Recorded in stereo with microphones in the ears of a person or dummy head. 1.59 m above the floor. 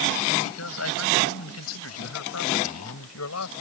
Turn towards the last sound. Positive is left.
turn(degrees=90)